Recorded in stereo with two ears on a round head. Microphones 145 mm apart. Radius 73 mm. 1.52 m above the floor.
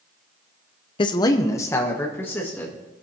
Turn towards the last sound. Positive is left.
turn(degrees=10)  # may be behind; listen again after turning